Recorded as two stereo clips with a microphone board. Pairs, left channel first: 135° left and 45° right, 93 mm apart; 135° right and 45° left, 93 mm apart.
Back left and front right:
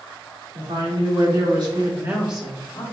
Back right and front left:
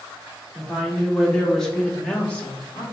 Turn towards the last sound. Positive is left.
turn(degrees=165)